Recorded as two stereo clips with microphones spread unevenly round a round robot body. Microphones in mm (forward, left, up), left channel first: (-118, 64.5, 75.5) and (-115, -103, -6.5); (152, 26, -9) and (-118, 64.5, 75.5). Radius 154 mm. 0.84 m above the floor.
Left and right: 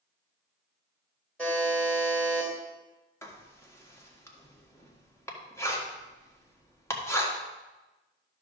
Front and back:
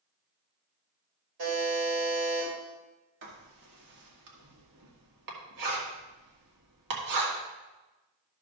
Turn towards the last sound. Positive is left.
turn(degrees=180)